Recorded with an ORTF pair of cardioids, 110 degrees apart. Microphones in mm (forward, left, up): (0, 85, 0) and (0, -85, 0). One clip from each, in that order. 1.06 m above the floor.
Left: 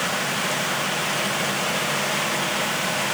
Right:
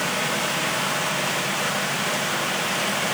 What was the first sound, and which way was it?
Only background noise.